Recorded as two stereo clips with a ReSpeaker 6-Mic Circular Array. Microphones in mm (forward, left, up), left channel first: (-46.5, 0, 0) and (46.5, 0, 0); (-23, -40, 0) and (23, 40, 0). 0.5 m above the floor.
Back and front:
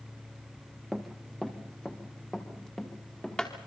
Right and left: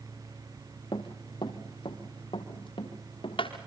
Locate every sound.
0.9 s running footsteps: 90° right, 2 m; by 3.5 s 100° right, 4 m